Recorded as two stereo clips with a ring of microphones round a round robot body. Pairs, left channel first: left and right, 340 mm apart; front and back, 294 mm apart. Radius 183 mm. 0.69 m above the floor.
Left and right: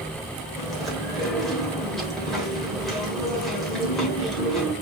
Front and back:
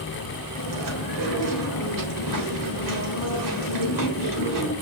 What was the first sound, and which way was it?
Chewing, straight behind.